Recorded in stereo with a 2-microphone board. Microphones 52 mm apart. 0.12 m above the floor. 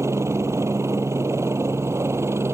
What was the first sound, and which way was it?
A helicopter, 65° right (ahead or behind).